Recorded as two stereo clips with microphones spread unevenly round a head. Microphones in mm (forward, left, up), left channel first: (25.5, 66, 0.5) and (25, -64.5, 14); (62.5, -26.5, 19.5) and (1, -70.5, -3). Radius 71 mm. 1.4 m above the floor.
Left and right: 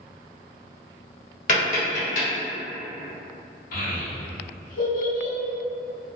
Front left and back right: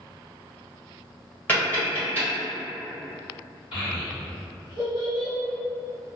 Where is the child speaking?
75° left, 1.5 m.